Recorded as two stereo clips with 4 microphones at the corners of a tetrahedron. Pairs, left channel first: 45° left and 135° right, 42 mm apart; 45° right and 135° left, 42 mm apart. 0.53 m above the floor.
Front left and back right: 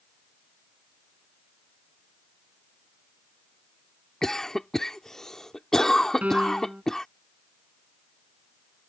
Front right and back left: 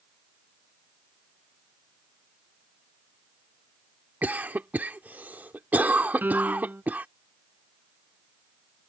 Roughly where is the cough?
Behind left.